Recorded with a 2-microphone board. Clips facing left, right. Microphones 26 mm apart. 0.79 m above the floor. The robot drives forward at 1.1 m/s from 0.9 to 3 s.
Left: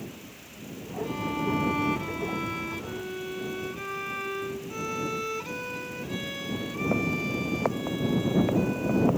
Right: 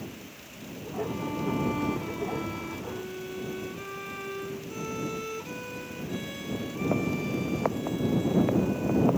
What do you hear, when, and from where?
1.0 s a violin: 30° left (ahead or behind); by 9.1 s 25° left (ahead or behind)